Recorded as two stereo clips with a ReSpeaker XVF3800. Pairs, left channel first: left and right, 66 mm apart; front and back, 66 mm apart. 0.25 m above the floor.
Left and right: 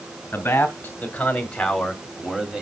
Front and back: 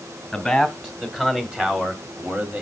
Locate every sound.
0.3 s a man speaking: 85° left, 1.6 m; by 2.6 s 150° right, 1.5 m